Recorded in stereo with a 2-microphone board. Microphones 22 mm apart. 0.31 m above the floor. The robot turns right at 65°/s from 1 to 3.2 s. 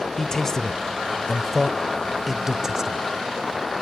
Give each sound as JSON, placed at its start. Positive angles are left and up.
{"t": 0.2, "sound": "a man speaking", "side_deg": 25, "distance_m": 0.9}